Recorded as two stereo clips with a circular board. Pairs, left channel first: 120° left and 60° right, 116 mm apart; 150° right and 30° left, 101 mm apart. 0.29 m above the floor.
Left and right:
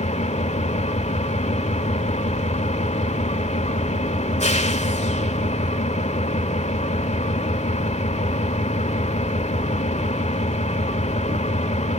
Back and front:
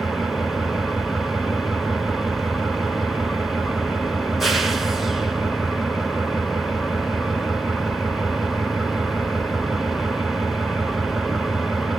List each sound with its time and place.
0.0 s an engine running: 120° left, 1.1 m